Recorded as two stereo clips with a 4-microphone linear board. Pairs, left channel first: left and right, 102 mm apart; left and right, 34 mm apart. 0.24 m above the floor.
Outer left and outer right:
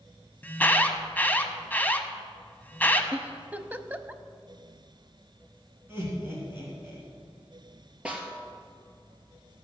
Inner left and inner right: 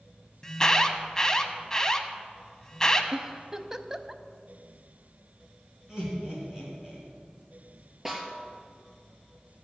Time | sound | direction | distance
0.4 | an alarm | 20° left (ahead or behind) | 1.0 m
3.1 | a giggle | 15° right (ahead or behind) | 0.5 m
5.9 | laughter | 25° right (ahead or behind) | 3 m
8.1 | a snare drum | 10° right (ahead or behind) | 2.5 m